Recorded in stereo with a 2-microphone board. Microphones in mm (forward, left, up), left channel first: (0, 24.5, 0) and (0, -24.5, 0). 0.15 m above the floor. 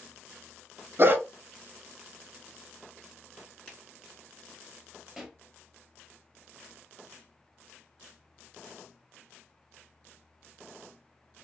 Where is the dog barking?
45° right (ahead or behind), 0.6 m.